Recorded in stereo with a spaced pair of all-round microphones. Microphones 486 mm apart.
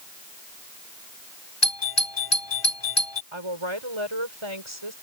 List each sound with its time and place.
1.6 s a doorbell: 55° left (ahead or behind)
3.3 s a woman speaking: 75° right (ahead or behind)